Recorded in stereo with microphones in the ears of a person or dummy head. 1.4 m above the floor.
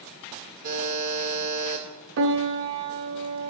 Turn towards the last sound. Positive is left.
turn(degrees=-70)  # may be behind; listen again after turning